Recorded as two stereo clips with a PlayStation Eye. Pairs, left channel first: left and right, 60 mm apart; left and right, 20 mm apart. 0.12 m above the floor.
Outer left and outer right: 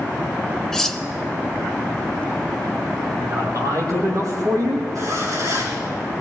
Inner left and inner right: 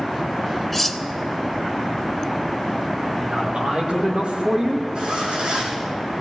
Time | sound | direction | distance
0.7 | cutlery clinking | 5° left (ahead or behind) | 0.9 m
3.2 | a man speaking | 65° right (ahead or behind) | 5 m
5.0 | a zipper | 65° right (ahead or behind) | 4.5 m